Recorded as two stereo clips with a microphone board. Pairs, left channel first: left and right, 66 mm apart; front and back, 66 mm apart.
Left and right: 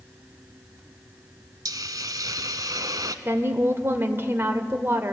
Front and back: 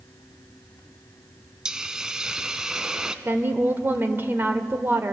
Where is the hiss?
100° right, 0.9 m.